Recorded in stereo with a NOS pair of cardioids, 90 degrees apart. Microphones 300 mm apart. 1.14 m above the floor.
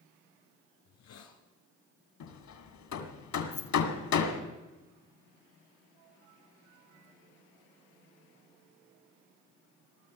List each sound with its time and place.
0.8 s a hiss: 65° left, 3 m
2.2 s hammering: 65° left, 2.5 m
3.5 s keys jangling: 45° left, 1.1 m